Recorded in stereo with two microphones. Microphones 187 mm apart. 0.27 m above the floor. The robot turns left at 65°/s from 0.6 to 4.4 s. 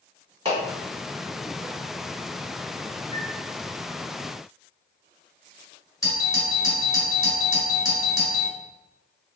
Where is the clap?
30° right (ahead or behind), 1.5 m.